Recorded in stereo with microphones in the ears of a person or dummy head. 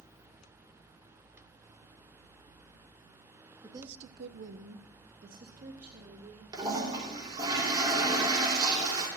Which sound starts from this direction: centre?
A woman speaking, at 3.6 s.